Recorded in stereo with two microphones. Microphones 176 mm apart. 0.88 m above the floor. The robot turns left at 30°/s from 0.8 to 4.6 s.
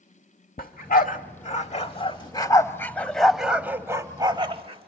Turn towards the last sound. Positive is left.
turn(degrees=-30)  # may be behind; listen again after turning